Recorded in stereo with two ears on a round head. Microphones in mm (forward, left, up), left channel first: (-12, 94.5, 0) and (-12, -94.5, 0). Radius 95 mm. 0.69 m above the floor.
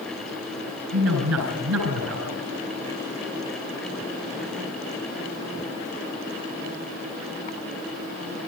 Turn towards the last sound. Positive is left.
turn(degrees=-80)